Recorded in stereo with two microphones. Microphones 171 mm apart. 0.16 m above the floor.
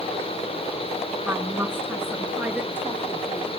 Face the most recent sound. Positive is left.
turn(degrees=-10)  # may be behind; listen again after turning